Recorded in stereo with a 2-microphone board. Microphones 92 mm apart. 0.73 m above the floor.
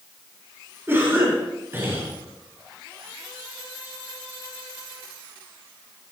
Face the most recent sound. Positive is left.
turn(degrees=-25)  # may be behind; listen again after turning